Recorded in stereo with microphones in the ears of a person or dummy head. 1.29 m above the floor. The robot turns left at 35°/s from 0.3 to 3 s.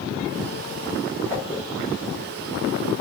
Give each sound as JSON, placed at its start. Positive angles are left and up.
{"t": 1.3, "sound": "a whoosh", "side_deg": 10, "distance_m": 3.0}